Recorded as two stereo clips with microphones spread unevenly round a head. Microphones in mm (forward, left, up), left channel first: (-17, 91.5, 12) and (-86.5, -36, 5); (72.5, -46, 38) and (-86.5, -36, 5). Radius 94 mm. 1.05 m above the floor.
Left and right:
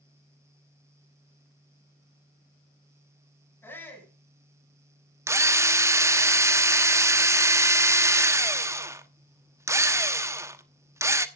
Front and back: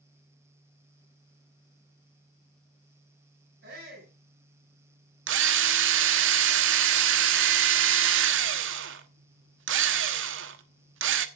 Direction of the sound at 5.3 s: 170° left.